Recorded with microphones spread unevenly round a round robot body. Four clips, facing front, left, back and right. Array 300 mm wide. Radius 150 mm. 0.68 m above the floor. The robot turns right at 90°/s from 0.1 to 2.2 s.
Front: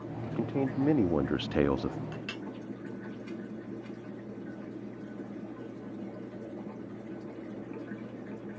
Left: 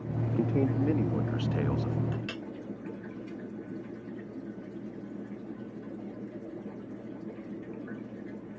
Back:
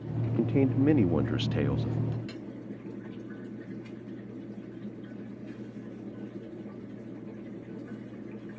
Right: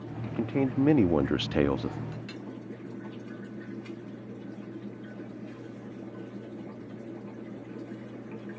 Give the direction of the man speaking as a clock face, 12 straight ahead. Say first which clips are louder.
Even, back 5 dB; 7 o'clock.